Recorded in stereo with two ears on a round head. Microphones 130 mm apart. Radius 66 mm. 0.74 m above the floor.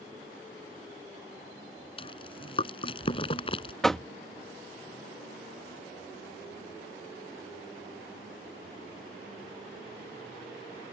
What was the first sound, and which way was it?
Chewing, 40° left (ahead or behind).